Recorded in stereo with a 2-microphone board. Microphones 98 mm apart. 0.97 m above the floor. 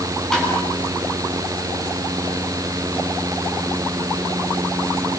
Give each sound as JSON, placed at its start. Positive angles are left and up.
{"t": 0.3, "sound": "tapping", "side_deg": 5, "distance_m": 9.5}